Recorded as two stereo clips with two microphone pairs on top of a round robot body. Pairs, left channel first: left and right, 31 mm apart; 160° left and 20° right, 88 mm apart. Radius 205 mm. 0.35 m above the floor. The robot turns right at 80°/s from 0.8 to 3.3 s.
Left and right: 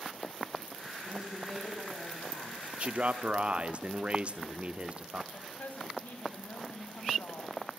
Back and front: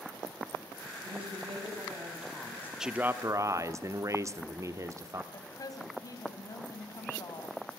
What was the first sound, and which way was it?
A woman speaking, 35° right.